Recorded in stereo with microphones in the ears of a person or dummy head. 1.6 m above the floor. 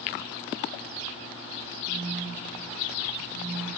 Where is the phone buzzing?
45° right (ahead or behind), 1.8 m.